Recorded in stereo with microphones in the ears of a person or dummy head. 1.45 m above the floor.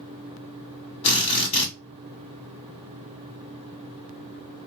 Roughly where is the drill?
Left.